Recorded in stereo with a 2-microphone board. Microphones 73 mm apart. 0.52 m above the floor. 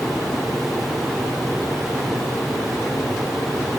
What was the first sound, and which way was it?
Only background noise.